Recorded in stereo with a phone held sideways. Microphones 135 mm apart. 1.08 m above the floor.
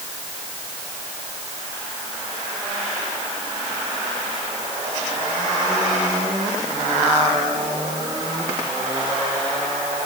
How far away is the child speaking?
No child speaking in this recording.